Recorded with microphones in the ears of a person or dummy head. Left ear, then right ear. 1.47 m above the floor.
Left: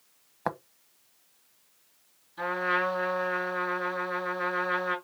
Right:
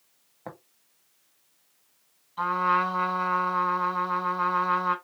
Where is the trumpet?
45° right (ahead or behind), 3.5 m.